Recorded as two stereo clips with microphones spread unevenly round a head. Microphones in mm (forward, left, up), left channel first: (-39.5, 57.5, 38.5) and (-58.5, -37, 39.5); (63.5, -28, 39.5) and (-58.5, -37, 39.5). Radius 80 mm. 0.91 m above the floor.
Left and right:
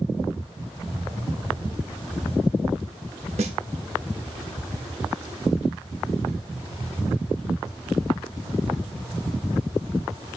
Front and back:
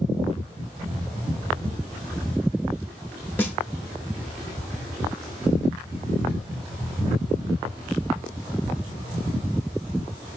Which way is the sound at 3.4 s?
70° right.